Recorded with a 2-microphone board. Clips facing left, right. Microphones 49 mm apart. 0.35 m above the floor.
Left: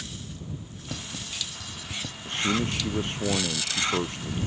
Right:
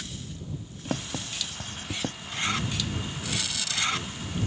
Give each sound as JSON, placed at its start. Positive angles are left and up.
{"t": 0.8, "sound": "writing", "side_deg": -45}
{"t": 2.2, "sound": "a man speaking", "side_deg": 65}